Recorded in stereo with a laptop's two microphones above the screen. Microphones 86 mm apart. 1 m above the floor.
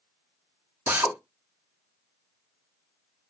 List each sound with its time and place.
0.9 s a drill: 20° right (ahead or behind), 0.7 m